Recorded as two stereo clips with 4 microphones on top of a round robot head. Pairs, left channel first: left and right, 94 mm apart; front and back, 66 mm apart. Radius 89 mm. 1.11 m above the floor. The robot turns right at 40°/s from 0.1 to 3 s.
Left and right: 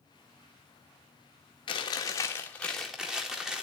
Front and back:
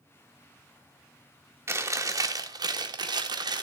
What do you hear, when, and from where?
1.7 s chewing: 135° left, 1.6 m; by 3.6 s 175° right, 1.6 m